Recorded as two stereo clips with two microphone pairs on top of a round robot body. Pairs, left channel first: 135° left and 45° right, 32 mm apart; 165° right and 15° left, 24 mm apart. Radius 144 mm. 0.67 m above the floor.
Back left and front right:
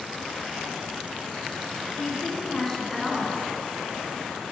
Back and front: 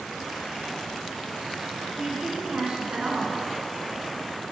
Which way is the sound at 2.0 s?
55° left.